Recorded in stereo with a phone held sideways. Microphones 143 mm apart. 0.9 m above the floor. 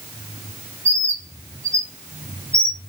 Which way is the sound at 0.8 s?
20° right (ahead or behind).